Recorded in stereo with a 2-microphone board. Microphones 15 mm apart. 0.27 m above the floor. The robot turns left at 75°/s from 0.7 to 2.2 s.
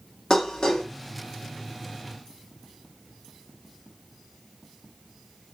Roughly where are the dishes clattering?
Left.